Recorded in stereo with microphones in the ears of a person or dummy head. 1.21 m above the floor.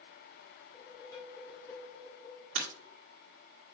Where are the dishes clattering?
20° left (ahead or behind), 3 m.